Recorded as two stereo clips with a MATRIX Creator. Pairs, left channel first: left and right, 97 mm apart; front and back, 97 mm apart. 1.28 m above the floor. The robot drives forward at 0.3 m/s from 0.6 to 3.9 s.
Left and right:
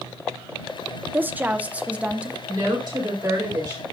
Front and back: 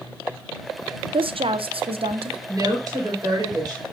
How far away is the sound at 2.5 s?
About 4 m.